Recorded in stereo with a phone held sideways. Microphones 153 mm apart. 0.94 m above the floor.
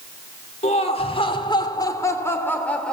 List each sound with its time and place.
0.6 s laughter: 45° left (ahead or behind), 3 m; by 2.9 s 5° left (ahead or behind), 3 m